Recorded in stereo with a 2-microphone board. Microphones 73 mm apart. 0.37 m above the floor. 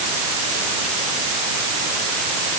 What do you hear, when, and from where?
Only background noise.